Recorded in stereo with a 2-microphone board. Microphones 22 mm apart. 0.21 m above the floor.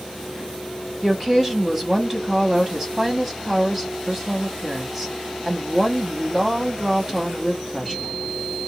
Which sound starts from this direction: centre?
A woman speaking, at 1.0 s.